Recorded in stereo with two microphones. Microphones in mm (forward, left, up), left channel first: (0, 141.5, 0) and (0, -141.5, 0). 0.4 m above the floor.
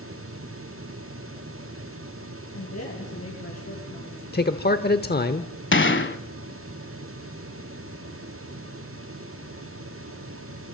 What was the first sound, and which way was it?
A woman speaking, 60° left (ahead or behind).